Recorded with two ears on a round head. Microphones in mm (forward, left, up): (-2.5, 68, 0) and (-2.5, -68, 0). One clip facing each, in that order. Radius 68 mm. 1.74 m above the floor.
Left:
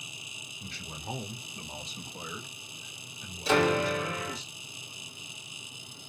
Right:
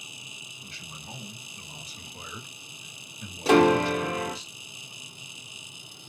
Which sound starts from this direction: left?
A man speaking, at 0.6 s.